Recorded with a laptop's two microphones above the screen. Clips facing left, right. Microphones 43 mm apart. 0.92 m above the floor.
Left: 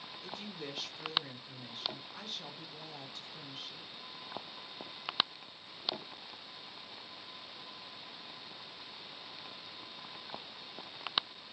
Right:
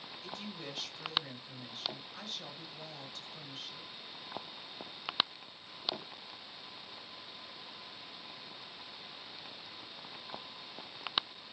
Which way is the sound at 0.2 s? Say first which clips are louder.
Even; 10° left (ahead or behind).